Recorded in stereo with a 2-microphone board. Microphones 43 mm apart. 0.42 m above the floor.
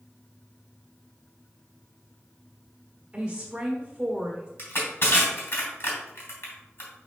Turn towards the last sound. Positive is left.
turn(degrees=50)  # may be behind; listen again after turning